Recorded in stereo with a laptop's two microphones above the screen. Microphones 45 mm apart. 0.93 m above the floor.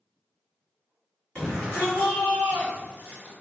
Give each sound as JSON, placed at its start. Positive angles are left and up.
{"t": 1.4, "sound": "a shout", "side_deg": 25, "distance_m": 1.8}